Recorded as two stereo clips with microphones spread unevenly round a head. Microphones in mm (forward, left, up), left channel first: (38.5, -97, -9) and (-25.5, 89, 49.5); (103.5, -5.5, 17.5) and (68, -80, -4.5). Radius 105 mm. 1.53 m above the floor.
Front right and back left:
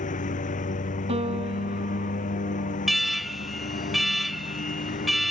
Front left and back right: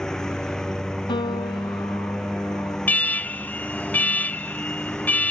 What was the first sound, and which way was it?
A lawn mower, 15° right.